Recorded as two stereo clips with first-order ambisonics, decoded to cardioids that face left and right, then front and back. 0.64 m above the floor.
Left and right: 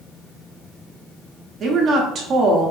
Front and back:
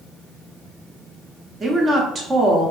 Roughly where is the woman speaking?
Behind right.